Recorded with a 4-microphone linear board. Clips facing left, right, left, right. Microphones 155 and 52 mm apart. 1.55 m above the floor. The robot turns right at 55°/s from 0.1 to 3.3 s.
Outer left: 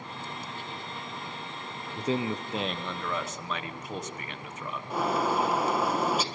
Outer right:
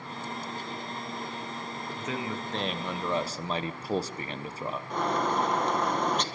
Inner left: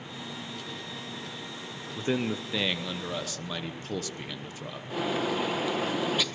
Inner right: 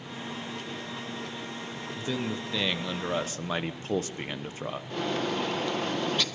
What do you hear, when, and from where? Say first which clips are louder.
2.0 s a man speaking: outer left 6 dB, inner left 4 dB; 140° left, 1.0 m; by 4.8 s 145° right, 1.0 m
4.9 s a bird: outer left 1 dB, inner left 2 dB; 5° left (ahead or behind), 1.6 m